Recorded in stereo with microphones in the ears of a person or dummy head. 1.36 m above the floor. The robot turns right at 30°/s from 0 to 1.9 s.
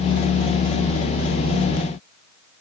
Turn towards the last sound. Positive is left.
No sound to turn to.